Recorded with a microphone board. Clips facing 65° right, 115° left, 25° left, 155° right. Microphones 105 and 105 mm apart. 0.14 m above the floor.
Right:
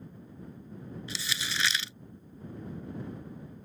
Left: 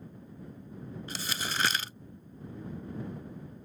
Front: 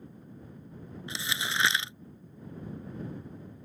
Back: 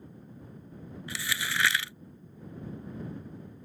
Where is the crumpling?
85° left.